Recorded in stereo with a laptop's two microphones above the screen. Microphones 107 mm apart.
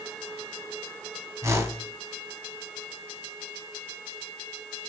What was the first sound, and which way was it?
A whoosh, 30° right (ahead or behind).